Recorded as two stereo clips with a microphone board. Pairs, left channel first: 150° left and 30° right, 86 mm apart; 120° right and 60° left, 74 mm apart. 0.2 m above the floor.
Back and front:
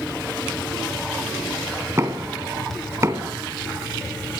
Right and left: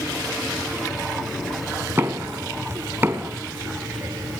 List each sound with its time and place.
2.0 s knocking: 15° left, 1.7 m